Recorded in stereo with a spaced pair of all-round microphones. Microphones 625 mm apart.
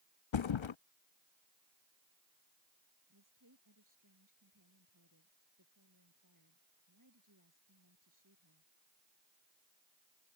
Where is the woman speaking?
30° right (ahead or behind).